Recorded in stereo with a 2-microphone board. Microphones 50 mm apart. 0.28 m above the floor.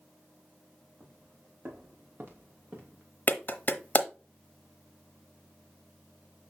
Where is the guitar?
No guitar in this recording.